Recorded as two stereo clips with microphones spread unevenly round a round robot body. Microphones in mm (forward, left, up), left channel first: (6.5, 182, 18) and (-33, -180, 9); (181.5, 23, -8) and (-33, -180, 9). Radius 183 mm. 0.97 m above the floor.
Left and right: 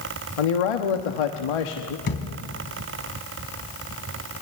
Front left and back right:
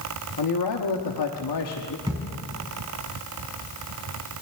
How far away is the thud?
About 2 m.